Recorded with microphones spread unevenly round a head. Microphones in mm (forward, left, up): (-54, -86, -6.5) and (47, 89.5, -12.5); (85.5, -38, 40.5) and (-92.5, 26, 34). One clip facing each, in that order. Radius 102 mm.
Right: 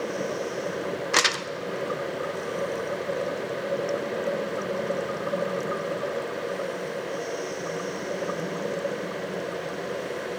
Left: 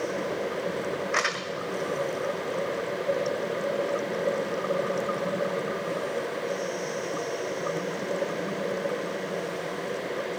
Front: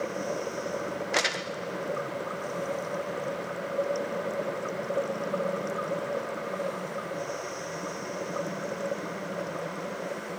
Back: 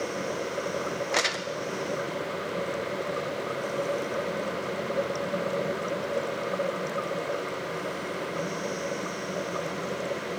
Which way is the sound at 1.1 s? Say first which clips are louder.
Right 2 dB, back 1 dB; 105° right.